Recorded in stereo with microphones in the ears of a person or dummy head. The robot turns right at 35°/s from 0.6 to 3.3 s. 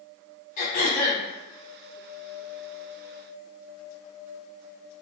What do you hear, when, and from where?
0.6 s throat clearing: 50° left (ahead or behind), 1.0 m; by 1.2 s 30° left (ahead or behind), 1.0 m